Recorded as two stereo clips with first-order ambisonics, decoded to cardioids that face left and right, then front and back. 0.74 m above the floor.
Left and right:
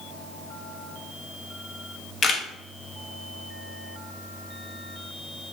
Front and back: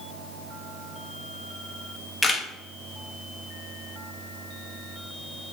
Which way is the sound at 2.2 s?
65° left.